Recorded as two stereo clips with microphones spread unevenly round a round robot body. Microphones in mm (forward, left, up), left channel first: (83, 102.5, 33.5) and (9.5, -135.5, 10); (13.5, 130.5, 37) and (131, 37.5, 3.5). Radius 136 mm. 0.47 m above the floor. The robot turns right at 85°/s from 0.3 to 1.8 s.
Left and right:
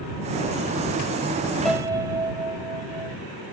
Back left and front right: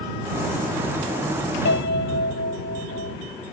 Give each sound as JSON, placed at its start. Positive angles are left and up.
{"t": 1.6, "sound": "a piano", "azimuth_deg": 160}